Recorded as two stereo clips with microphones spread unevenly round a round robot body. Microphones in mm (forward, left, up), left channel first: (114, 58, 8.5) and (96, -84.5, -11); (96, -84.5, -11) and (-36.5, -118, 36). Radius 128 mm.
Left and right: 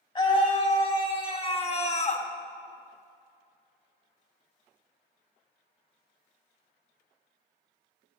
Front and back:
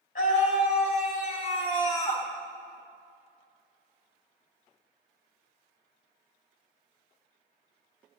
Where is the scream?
25° left, 3.5 m; by 2.3 s 65° left, 1.4 m.